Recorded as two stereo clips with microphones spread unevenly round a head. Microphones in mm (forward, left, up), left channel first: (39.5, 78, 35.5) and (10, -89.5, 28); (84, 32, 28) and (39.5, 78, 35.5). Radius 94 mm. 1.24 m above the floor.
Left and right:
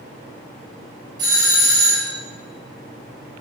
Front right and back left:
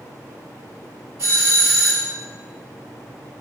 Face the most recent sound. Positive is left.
turn(degrees=-165)